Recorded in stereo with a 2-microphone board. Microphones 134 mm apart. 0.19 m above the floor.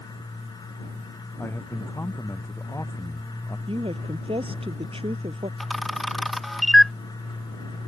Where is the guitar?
I don't hear a guitar.